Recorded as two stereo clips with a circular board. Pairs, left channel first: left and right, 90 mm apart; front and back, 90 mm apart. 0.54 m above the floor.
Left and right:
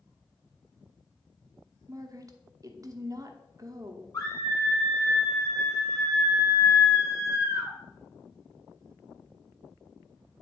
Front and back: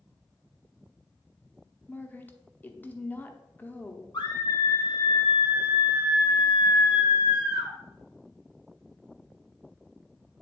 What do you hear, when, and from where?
1.9 s a woman speaking: 60° right, 0.8 m
4.1 s a scream: 35° left, 2 m